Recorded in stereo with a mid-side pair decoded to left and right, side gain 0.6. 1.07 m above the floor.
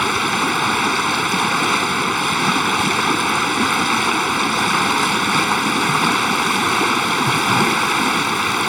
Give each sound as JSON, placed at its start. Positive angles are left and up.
{"t": 0.0, "sound": "running water", "azimuth_deg": 0}